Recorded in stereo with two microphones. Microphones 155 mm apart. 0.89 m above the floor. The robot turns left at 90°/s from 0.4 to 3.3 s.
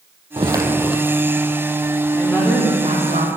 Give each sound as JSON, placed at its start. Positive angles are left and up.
{"t": 0.4, "sound": "footsteps", "azimuth_deg": -130, "distance_m": 1.1}
{"t": 2.1, "sound": "a woman speaking", "azimuth_deg": 10, "distance_m": 2.0}